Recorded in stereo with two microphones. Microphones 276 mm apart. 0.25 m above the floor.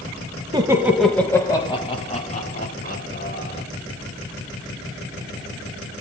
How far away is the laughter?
About 0.9 m.